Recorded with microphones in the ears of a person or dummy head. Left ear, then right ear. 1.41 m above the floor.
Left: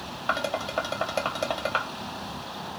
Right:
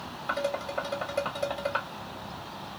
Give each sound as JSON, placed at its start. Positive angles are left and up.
{"t": 0.3, "sound": "dishes clattering", "side_deg": 25, "distance_m": 1.4}